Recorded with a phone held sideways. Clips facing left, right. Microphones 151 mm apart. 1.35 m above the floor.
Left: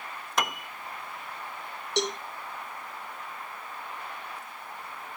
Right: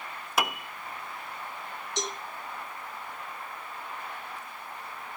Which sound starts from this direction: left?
A cowbell, at 2.0 s.